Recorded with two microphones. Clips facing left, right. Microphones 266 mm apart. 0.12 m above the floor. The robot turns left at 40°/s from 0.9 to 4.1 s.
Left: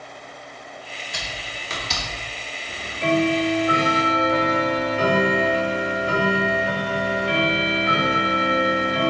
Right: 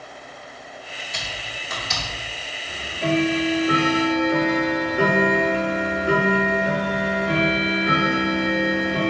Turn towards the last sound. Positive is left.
turn(degrees=-55)